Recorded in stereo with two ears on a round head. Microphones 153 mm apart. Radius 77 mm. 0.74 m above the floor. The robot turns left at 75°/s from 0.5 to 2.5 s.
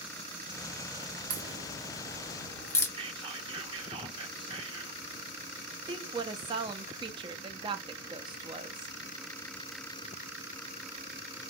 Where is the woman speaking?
25° right (ahead or behind), 0.5 m.